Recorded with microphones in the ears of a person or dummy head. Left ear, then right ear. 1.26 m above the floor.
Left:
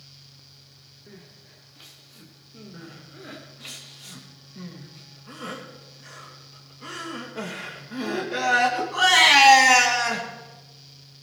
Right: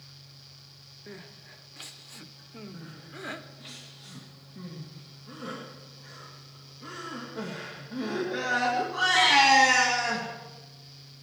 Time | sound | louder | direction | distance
1.1 | crying | right 4 dB | 35° right (ahead or behind) | 1.1 m
2.7 | crying | left 1 dB | 30° left (ahead or behind) | 2.5 m